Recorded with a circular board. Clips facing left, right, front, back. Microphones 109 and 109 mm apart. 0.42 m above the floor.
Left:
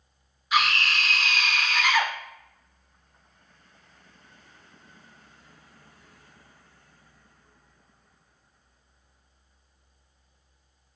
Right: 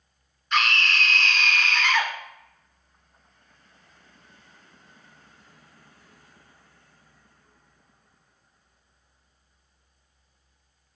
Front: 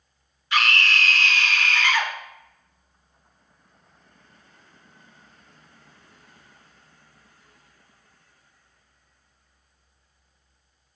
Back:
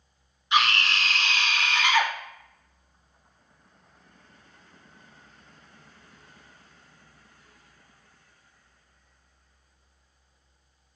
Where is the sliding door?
I don't hear a sliding door.